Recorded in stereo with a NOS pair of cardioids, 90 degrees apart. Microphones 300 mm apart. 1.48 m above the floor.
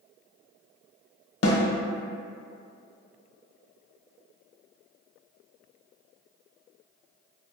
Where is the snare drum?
50° left, 0.8 m.